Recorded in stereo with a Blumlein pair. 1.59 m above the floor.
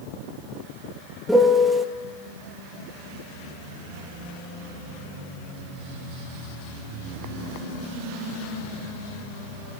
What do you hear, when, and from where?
1.3 s a piano: straight ahead, 1.7 m